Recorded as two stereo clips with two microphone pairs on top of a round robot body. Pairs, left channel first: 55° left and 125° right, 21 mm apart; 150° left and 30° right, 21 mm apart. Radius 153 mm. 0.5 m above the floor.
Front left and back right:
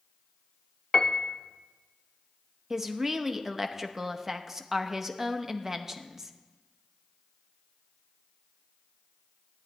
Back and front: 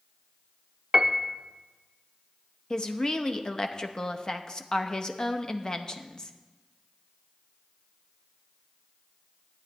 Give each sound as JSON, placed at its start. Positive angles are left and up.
{"t": 0.9, "sound": "a piano", "azimuth_deg": 5, "distance_m": 0.8}
{"t": 2.7, "sound": "a woman speaking", "azimuth_deg": 180, "distance_m": 1.0}